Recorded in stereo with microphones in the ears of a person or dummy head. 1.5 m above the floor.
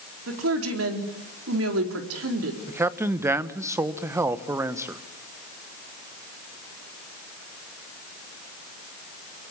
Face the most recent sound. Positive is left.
turn(degrees=-10)  # may be behind; listen again after turning